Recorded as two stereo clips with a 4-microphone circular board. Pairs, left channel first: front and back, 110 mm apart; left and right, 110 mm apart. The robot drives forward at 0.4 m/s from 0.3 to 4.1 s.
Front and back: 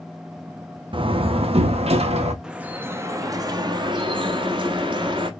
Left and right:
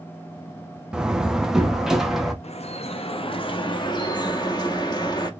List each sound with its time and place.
0.9 s a door slam: 170° right, 0.5 m; by 2.3 s 175° right, 1.0 m
2.4 s dripping: 95° left, 0.7 m; by 5.3 s 140° left, 1.0 m